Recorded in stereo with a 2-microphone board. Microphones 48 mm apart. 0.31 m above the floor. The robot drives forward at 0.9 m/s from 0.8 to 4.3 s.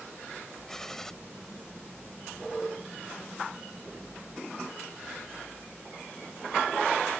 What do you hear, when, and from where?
0.7 s a gunshot: 10° left (ahead or behind)